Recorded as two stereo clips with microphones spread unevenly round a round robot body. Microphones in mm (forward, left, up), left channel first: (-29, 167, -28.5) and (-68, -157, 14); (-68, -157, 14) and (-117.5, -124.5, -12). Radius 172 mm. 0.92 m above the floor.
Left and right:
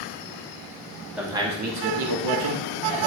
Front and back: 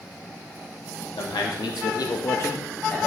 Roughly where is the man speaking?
Ahead.